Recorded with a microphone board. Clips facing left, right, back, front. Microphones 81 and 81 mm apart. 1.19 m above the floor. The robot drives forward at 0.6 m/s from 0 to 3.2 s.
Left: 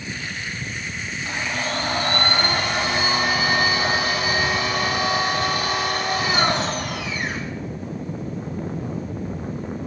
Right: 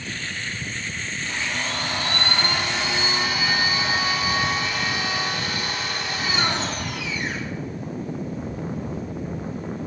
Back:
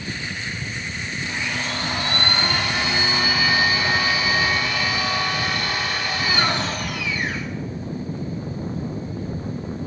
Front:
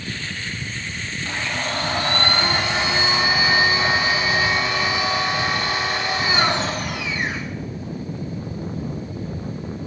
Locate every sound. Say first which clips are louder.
1.2 s a blender: left 3 dB, front 2 dB; 45° left, 3.5 m; by 7.5 s 65° left, 2.5 m